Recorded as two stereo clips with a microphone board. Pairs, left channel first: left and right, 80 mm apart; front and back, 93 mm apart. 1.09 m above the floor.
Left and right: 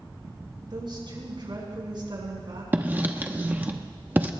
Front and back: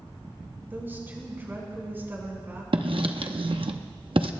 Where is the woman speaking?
115° right, 5.5 m.